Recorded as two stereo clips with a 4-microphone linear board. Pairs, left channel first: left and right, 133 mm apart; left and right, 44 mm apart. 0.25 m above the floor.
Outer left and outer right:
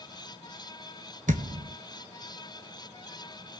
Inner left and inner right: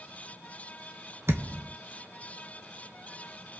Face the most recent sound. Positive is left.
turn(degrees=-70)  # may be behind; listen again after turning